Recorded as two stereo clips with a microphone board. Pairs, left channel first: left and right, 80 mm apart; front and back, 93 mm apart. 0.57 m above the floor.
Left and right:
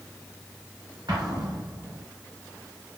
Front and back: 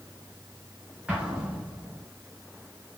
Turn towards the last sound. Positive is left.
turn(degrees=-105)